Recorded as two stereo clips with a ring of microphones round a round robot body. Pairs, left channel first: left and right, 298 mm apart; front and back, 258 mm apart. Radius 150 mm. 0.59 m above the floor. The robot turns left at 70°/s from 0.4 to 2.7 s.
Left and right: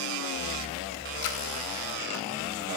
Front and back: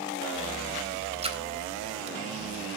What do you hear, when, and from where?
1.2 s a splash: 115° left, 3 m; by 1.4 s 100° left, 3 m